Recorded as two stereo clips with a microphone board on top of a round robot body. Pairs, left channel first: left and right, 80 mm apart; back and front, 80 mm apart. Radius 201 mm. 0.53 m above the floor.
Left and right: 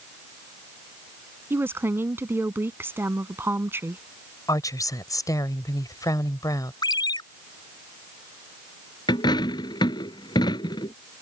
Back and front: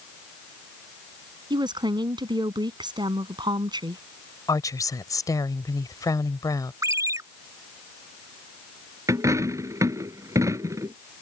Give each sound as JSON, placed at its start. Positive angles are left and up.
{"t": 1.5, "sound": "a woman speaking", "azimuth_deg": -30}
{"t": 4.5, "sound": "a woman speaking", "azimuth_deg": 135}
{"t": 6.8, "sound": "a ringtone", "azimuth_deg": 55}
{"t": 9.1, "sound": "a dropped coin", "azimuth_deg": 55}